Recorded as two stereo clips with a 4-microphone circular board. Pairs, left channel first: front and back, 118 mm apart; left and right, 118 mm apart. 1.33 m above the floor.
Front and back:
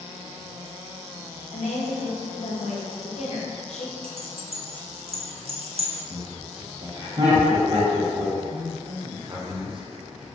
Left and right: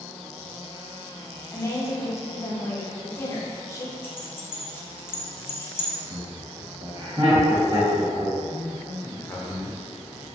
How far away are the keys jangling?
About 0.5 m.